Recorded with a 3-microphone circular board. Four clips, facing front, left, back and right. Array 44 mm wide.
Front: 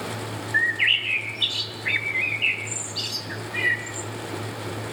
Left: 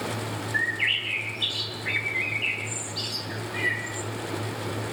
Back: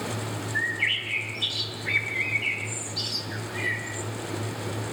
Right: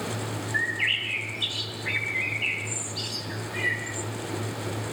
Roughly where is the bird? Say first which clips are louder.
Left 1 dB, front 6 dB; ahead.